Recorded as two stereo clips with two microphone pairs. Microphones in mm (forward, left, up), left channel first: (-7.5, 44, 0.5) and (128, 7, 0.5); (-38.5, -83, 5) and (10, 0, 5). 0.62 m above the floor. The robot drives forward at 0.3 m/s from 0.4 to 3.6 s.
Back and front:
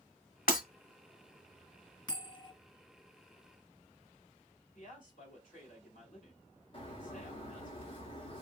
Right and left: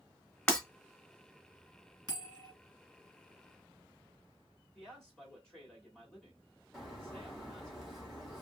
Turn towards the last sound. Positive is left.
turn(degrees=150)